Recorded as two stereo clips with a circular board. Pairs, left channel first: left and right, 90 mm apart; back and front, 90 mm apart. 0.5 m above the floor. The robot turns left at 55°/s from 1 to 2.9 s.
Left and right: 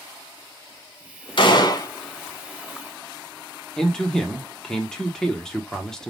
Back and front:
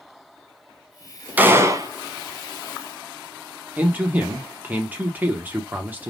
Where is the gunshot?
70° left, 0.7 m; by 1.9 s 40° left, 0.7 m.